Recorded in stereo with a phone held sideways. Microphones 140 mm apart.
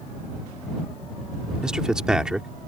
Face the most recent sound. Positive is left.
turn(degrees=-5)  # may be behind; listen again after turning